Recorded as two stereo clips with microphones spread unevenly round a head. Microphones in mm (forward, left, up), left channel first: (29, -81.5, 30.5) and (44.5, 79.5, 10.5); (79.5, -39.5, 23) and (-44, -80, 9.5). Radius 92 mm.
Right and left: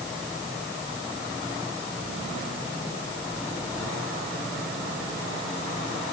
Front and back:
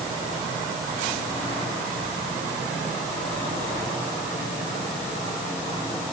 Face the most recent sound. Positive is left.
No sound to turn to.